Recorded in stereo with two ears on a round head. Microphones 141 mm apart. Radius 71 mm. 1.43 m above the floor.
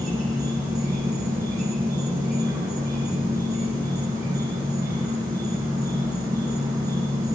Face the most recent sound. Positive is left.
turn(degrees=-25)  # may be behind; listen again after turning